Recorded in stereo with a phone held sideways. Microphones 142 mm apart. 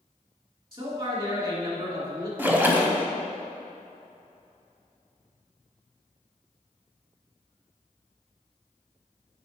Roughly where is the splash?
Centre.